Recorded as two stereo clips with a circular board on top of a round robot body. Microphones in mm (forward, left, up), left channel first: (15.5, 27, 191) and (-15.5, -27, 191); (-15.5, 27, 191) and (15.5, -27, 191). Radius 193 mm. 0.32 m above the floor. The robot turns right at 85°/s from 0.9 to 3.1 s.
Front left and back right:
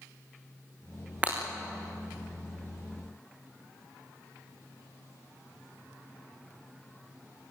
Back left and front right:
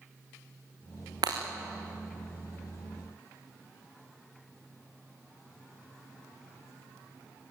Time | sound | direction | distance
1.2 | breaking glass | 50° right | 4 m